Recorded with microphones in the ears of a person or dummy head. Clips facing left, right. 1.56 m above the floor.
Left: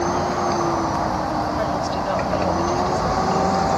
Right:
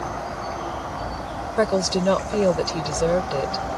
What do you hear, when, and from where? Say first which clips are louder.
0.0 s a machine running: left 9 dB; 85° left
1.6 s a woman speaking: right 2 dB; 75° right (ahead or behind)